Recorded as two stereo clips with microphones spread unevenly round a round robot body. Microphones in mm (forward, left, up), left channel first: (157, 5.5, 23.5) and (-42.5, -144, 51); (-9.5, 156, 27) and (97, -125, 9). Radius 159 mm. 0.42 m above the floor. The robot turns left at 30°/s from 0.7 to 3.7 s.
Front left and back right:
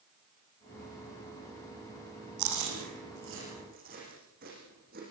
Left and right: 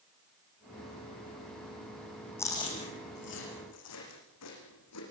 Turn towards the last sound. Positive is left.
turn(degrees=155)